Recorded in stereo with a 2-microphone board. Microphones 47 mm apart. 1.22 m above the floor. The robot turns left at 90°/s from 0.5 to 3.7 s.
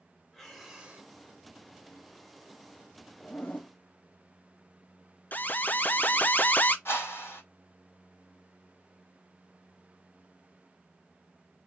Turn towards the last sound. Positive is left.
turn(degrees=60)  # may be behind; listen again after turning